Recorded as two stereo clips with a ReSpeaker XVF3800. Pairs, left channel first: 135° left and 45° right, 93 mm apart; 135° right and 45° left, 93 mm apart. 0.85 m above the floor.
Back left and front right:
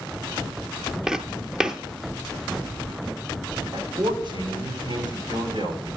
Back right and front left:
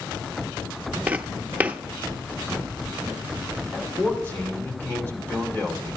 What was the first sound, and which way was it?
Footsteps, 20° left.